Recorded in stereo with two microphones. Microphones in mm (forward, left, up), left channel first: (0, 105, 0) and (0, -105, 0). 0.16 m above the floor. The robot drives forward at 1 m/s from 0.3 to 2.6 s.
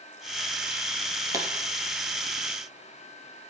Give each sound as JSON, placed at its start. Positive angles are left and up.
{"t": 1.3, "sound": "a pop", "side_deg": -15, "distance_m": 3.0}